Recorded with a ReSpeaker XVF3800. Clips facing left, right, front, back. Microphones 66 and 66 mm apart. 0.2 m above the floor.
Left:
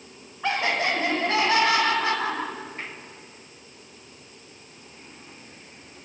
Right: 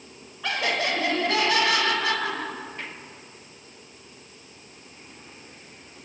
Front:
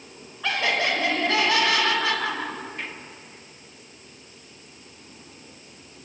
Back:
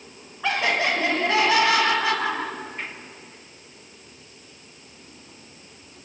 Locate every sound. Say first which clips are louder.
0.4 s laughter: left 2 dB, back 1 dB; 125° left, 1.2 m